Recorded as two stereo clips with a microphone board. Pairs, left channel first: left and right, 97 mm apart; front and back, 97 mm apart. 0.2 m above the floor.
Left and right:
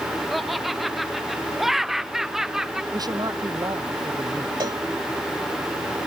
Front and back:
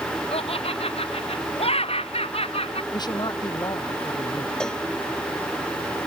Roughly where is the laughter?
Ahead.